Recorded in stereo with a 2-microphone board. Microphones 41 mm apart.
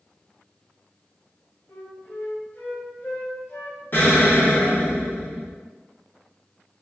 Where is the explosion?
50° left (ahead or behind), 1.0 m.